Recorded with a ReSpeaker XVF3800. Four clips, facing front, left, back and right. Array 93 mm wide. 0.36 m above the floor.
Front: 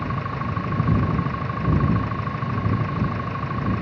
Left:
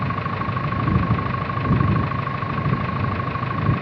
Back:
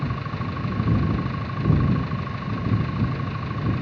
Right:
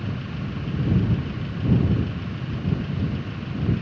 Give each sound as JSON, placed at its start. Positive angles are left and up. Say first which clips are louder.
{"t": 0.0, "sound": "an engine running", "louder": "left 8 dB, front 3 dB", "azimuth_deg": 65}